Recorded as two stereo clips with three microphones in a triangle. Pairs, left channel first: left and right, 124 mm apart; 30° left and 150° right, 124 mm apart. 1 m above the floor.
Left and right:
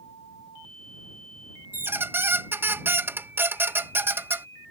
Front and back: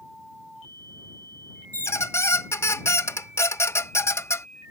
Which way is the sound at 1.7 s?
25° right.